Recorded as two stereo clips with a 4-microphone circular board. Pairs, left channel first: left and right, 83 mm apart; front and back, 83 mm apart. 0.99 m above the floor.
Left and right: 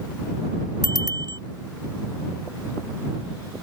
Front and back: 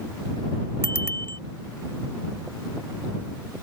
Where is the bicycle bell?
60° right.